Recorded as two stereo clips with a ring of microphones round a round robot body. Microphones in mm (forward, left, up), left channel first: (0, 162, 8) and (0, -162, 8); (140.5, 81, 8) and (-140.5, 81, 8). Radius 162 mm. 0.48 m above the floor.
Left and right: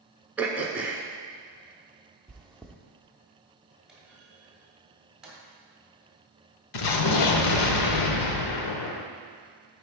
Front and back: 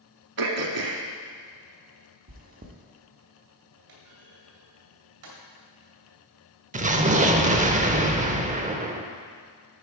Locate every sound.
0.4 s throat clearing: 175° right, 0.9 m
2.3 s chewing: 175° left, 0.8 m
3.9 s a clunk: straight behind, 2 m
6.7 s an explosion: 115° left, 0.7 m